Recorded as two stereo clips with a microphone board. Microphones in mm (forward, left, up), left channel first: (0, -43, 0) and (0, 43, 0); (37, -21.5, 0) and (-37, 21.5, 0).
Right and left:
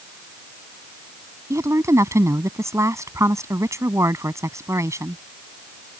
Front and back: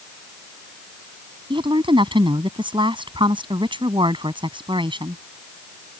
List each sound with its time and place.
1.5 s a woman speaking: 145° left